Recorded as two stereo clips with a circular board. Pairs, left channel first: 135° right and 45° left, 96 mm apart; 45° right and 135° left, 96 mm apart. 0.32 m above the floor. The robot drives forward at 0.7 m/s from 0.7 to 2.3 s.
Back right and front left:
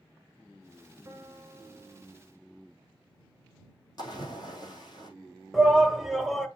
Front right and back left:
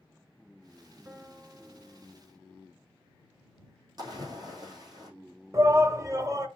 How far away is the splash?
About 4 m.